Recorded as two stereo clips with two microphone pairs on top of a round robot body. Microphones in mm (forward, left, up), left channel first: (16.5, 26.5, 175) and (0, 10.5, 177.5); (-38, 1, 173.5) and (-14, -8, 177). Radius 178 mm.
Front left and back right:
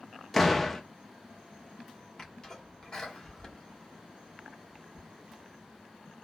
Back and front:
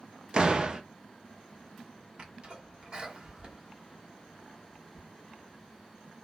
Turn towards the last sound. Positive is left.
turn(degrees=25)